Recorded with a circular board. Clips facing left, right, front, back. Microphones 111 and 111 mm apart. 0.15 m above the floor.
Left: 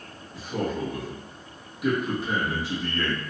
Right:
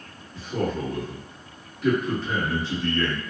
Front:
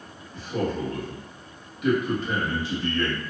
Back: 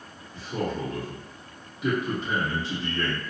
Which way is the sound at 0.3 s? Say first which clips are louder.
Right 2 dB, front 2 dB; 155° left.